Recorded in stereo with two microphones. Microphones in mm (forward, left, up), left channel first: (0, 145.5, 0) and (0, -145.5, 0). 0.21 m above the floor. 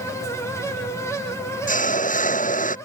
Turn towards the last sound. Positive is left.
turn(degrees=25)  # may be behind; listen again after turning